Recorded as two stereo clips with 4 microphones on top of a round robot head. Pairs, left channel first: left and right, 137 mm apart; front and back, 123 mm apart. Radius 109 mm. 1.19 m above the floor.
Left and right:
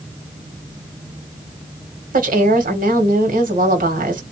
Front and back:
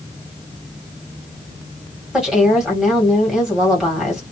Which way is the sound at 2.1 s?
95° right.